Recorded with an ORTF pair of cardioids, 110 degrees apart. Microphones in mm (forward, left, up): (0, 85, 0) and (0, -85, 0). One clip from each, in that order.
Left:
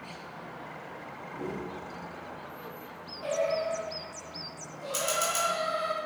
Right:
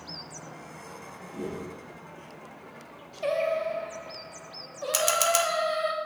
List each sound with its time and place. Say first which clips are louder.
1.3 s a whoosh: right 1 dB; 65° right, 1.5 m
3.2 s singing: right 2 dB; 60° right, 0.9 m
4.9 s a camera shutter: right 5 dB; 60° right, 0.7 m